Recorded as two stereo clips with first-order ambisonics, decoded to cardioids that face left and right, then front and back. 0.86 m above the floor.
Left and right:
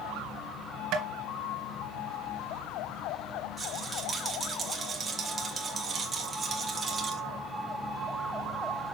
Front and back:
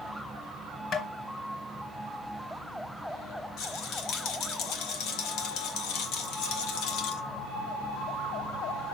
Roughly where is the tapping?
Ahead right.